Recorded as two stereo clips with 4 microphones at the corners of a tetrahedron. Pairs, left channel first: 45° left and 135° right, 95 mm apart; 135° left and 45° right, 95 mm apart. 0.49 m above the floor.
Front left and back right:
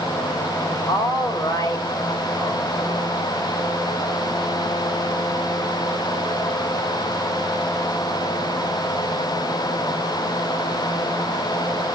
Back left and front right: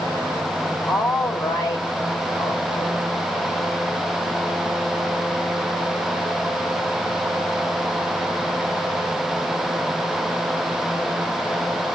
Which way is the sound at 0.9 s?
90° left.